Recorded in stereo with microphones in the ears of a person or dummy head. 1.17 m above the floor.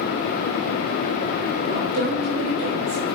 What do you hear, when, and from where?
1.7 s a woman speaking: 30° right (ahead or behind), 4 m